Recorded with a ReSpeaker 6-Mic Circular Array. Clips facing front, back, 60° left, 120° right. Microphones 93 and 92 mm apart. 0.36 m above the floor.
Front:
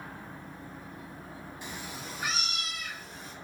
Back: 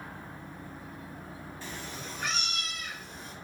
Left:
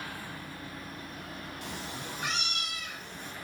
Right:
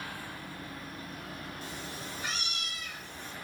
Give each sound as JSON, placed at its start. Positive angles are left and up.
{"t": 1.6, "sound": "a cat meowing", "azimuth_deg": 70, "distance_m": 1.0}